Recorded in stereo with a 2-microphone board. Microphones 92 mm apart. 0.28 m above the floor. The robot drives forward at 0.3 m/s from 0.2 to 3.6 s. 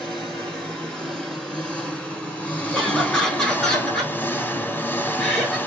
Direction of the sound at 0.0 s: 10° left (ahead or behind).